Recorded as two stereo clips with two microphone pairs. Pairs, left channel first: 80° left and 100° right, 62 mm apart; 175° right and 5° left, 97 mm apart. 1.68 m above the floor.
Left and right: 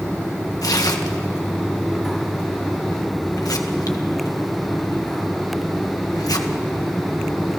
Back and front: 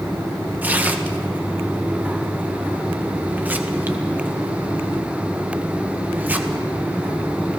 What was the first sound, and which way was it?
Tearing paper, 75° left.